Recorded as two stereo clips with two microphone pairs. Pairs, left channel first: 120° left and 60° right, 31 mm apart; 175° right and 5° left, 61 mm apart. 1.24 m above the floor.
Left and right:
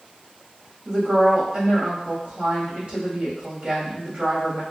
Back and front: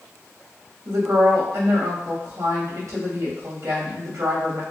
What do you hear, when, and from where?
0.8 s a woman speaking: 10° right, 1.8 m